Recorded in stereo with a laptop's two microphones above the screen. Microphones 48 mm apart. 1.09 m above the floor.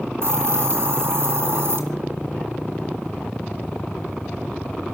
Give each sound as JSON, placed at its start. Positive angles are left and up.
{"t": 0.2, "sound": "a hiss", "side_deg": -55, "distance_m": 2.0}